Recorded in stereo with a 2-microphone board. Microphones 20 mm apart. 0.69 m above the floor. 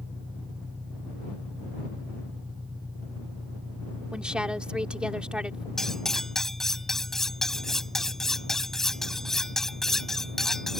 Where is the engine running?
55° right (ahead or behind).